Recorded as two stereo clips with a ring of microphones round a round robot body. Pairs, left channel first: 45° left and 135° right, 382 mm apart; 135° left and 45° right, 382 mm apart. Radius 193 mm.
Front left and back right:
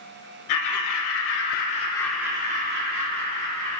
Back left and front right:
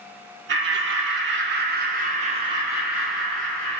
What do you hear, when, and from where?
0.5 s laughter: 10° left, 1.4 m; by 3.8 s 145° right, 1.3 m